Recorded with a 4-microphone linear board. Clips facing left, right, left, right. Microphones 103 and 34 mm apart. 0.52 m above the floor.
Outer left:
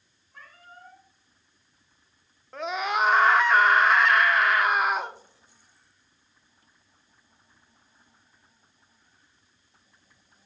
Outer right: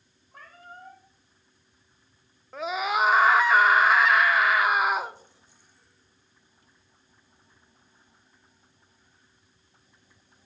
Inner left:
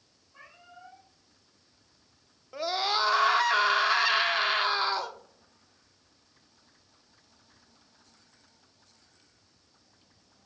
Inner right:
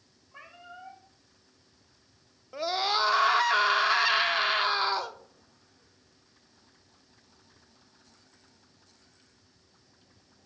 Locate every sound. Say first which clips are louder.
0.3 s a cat meowing: outer right 3 dB, inner right 4 dB; 45° right (ahead or behind), 8 m
2.5 s a scream: outer right 1 dB, inner right 1 dB; 5° right (ahead or behind), 0.7 m